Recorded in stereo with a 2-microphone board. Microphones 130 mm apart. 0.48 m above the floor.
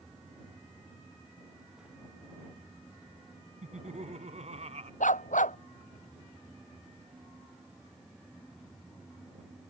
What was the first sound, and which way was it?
Laughter, 65° right (ahead or behind).